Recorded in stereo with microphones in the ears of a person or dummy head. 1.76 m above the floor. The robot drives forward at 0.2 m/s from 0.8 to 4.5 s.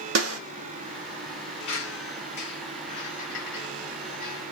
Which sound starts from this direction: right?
A snare drum, at 0.1 s.